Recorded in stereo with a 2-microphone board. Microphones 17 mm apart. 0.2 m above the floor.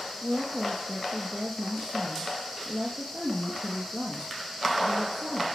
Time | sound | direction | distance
0.2 | a woman speaking | 40° right (ahead or behind) | 4.5 m